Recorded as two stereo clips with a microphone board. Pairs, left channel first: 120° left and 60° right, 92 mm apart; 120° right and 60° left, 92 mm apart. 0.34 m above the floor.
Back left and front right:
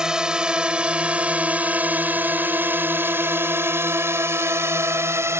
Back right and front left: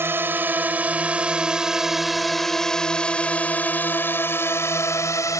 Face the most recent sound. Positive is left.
turn(degrees=-100)